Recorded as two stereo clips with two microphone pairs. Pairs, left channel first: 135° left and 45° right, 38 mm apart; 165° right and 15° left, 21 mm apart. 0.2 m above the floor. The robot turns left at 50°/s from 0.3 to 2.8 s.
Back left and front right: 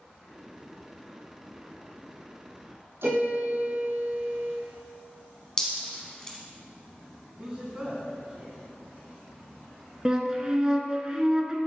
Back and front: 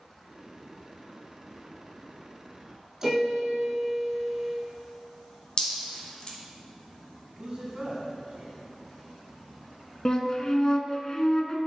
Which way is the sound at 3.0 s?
55° right.